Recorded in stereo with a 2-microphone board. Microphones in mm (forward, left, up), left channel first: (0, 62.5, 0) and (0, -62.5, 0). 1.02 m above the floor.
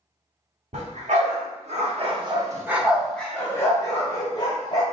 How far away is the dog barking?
About 1.3 m.